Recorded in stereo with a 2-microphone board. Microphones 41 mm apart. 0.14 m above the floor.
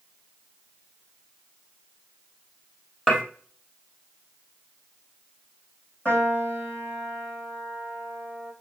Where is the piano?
35° left (ahead or behind), 4.5 m.